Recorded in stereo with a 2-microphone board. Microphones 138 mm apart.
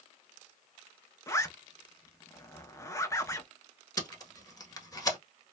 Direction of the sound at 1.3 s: 20° left (ahead or behind).